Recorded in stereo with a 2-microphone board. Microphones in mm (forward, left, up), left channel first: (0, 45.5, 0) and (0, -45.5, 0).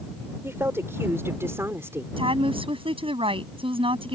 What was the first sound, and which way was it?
A woman speaking, 30° right (ahead or behind).